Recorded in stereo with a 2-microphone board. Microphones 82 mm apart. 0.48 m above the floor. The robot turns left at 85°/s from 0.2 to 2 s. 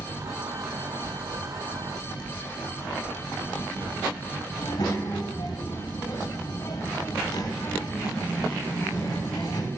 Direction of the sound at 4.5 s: 55° left (ahead or behind).